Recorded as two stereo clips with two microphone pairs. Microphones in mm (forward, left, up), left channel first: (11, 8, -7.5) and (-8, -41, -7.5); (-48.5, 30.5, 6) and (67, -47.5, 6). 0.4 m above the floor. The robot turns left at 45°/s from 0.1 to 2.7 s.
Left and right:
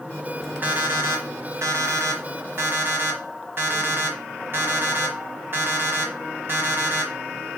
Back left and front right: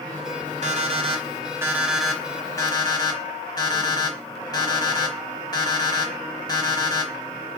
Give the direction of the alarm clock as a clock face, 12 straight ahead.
2 o'clock.